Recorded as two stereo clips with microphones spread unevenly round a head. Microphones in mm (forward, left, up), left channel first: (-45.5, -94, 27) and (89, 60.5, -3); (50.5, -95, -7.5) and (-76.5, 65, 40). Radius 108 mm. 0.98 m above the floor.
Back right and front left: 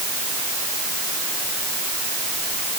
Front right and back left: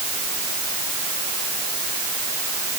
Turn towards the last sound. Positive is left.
No sound to turn to.